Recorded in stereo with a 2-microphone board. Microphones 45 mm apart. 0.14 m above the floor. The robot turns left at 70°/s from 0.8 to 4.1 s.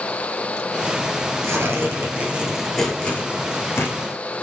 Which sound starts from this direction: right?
Tearing paper, at 1.4 s.